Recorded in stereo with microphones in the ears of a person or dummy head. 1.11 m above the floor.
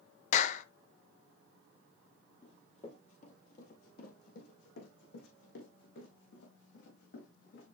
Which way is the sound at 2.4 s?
35° left (ahead or behind).